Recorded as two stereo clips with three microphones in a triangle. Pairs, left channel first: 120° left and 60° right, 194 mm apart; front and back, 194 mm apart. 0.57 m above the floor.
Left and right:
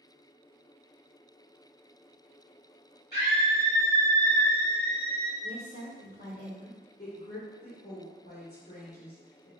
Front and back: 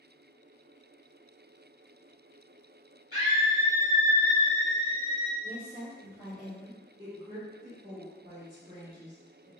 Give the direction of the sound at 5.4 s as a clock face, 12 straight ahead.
9 o'clock.